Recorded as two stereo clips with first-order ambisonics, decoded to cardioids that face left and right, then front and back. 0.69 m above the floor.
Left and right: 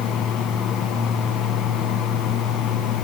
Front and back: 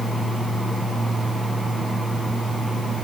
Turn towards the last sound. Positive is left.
No sound to turn to.